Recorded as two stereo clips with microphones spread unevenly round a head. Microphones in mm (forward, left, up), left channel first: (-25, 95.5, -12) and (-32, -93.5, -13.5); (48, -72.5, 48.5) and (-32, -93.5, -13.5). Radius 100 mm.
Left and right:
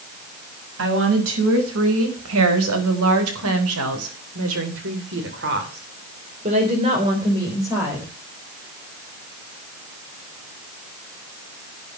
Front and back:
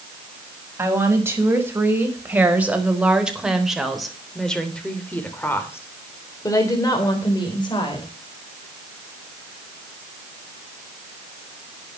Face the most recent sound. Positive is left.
turn(degrees=-10)